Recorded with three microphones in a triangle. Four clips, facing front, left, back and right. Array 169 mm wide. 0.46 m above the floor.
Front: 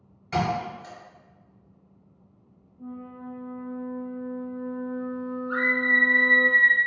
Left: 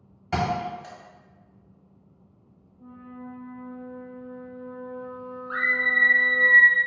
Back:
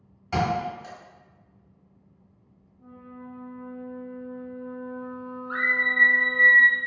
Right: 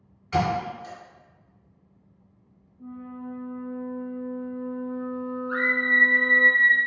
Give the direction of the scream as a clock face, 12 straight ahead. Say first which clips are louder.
Even, front 2 dB; 9 o'clock.